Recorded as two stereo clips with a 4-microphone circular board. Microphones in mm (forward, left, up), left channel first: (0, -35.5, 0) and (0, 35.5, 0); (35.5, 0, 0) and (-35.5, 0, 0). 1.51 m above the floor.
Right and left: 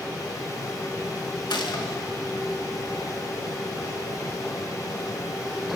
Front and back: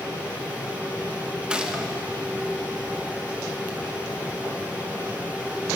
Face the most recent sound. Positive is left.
turn(degrees=-100)